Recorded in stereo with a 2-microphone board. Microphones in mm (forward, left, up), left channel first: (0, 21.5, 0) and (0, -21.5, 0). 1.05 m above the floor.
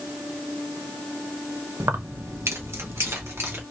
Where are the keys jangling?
85° right, 0.6 m; by 3.6 s 65° right (ahead or behind), 1.4 m.